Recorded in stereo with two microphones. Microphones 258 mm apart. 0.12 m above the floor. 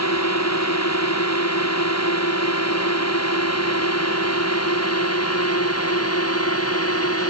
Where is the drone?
85° left; by 7.3 s 60° left (ahead or behind).